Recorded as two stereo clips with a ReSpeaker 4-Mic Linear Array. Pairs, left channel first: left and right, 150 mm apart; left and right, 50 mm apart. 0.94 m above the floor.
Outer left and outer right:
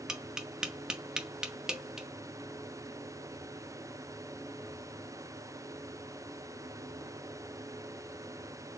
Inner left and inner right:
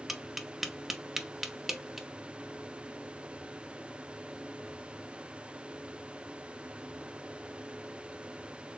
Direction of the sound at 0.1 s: 5° right (ahead or behind).